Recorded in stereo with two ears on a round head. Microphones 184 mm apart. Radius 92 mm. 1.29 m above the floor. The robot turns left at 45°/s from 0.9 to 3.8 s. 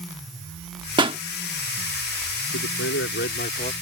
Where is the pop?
25° right (ahead or behind); by 1.2 s 30° right (ahead or behind).